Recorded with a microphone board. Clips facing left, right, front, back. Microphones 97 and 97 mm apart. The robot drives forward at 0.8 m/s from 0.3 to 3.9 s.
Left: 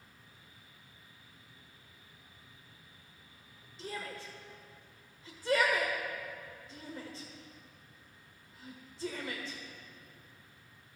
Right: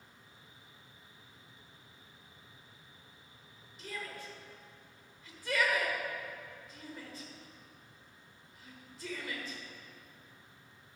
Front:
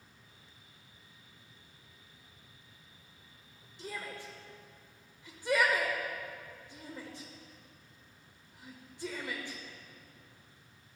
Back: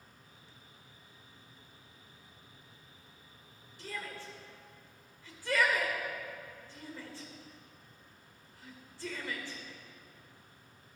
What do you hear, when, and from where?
3.8 s a shout: 55° left, 1.4 m; by 9.6 s 60° left, 1.3 m